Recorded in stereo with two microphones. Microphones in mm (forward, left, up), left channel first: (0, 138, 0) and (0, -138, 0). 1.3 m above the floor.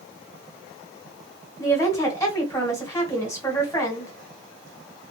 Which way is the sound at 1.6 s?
10° left (ahead or behind).